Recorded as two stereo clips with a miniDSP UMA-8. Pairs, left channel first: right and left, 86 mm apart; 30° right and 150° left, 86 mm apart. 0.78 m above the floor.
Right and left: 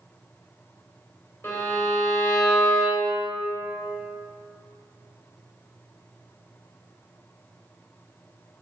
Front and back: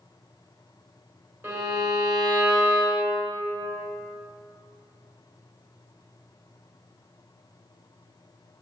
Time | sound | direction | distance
1.4 | a violin | 150° right | 3 m